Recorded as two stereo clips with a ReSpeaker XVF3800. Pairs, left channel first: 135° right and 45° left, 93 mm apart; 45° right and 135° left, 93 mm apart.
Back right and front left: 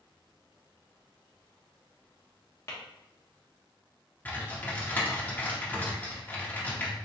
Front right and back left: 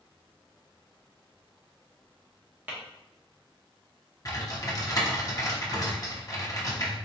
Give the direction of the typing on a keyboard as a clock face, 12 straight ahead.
2 o'clock.